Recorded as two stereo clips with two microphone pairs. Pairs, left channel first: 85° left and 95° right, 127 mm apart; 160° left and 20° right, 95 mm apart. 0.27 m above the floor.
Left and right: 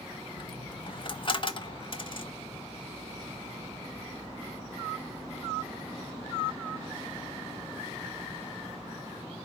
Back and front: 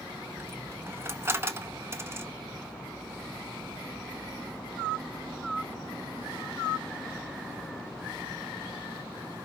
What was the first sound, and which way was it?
A dropped coin, 40° left.